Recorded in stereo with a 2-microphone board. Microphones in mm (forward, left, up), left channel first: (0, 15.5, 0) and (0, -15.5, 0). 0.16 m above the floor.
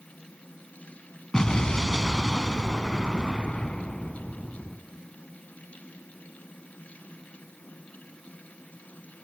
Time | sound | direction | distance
1.3 | an explosion | 25° left (ahead or behind) | 1.6 m